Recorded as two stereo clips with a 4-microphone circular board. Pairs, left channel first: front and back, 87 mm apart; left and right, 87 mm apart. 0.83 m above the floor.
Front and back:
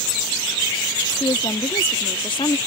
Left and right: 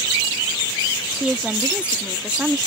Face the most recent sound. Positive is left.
turn(degrees=-15)